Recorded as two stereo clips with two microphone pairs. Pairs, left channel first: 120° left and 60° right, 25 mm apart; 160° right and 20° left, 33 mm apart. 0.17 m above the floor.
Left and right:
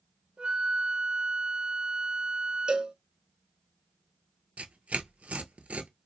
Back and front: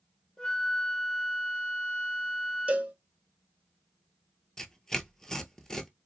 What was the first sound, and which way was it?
A flute, 95° right.